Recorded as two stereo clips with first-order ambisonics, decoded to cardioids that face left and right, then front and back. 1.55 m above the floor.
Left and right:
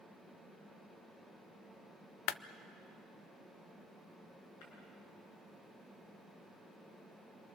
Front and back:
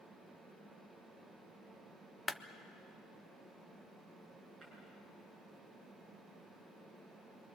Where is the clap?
80° left, 0.6 m.